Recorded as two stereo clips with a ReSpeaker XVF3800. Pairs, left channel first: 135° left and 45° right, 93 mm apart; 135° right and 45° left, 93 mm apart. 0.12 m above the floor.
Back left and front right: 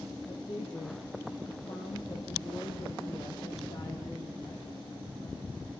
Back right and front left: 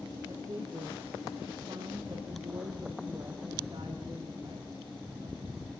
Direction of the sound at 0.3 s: 105° left.